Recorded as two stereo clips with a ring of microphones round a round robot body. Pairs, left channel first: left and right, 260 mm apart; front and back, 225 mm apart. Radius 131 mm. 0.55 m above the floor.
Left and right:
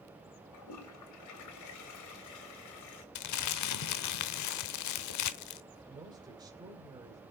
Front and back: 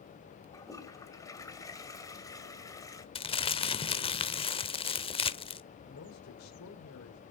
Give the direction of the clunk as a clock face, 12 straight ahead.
I don't hear a clunk.